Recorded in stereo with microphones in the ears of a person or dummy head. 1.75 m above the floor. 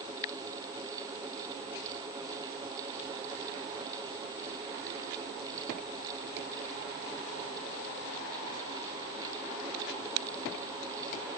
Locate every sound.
Only background noise.